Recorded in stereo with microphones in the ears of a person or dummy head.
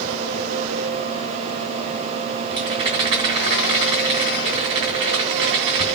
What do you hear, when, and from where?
2.5 s a rattle: 25° right (ahead or behind), 2 m